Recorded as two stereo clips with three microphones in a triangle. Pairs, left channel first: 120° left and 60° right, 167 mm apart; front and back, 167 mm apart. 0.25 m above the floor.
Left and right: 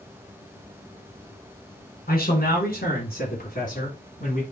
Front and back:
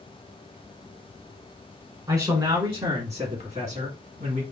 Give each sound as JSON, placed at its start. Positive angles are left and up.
{"t": 2.1, "sound": "a man speaking", "azimuth_deg": 115, "distance_m": 2.0}